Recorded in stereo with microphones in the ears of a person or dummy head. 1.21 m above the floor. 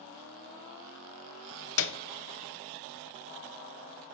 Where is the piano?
65° left (ahead or behind), 0.5 m.